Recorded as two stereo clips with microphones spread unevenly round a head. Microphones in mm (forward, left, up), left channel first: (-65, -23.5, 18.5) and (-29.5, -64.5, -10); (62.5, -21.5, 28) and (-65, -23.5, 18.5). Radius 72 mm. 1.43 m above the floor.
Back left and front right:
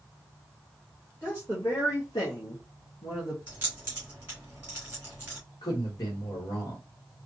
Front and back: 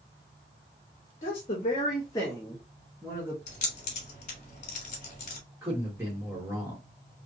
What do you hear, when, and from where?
1.2 s a woman speaking: 40° left, 1.1 m; by 3.4 s 110° left, 1.0 m
3.5 s keys jangling: 40° left, 1.6 m
5.6 s a man speaking: 105° left, 1.6 m